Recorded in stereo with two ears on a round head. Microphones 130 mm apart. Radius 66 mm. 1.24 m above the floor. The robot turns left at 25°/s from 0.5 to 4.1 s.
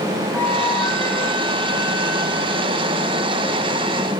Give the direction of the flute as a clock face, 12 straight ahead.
7 o'clock.